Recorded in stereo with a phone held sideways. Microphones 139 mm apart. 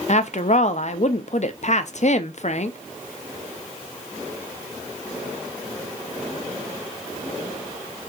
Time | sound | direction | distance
0.1 | a woman speaking | 55° left (ahead or behind) | 0.5 m